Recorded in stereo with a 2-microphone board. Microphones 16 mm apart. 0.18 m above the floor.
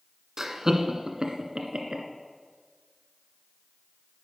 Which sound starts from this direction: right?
Laughter, at 0.4 s.